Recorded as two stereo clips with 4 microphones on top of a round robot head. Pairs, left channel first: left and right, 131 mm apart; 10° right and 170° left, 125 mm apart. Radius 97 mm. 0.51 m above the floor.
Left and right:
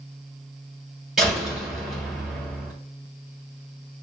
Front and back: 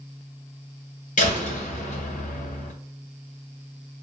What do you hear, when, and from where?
1.2 s a door slam: 5° right, 1.5 m